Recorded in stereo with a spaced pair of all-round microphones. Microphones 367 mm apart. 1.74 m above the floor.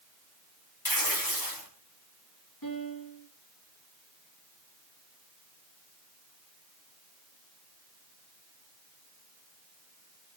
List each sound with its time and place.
0.8 s tearing paper: 65° left (ahead or behind), 3 m
2.6 s a piano: 65° left (ahead or behind), 4 m